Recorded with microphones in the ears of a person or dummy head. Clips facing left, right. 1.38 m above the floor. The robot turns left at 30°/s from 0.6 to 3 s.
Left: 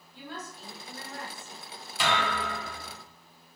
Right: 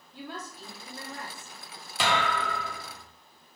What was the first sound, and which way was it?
A woman speaking, 65° right (ahead or behind).